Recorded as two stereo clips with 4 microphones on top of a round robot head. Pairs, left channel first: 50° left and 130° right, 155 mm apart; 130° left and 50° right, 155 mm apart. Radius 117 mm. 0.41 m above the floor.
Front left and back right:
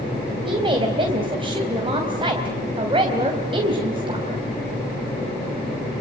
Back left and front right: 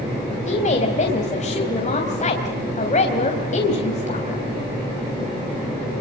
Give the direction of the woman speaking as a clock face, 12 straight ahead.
6 o'clock.